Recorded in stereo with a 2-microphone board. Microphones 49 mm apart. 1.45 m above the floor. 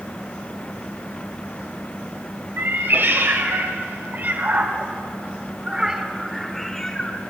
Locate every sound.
2.6 s a cat meowing: 45° right (ahead or behind), 2 m; by 7.2 s 15° left (ahead or behind), 1.4 m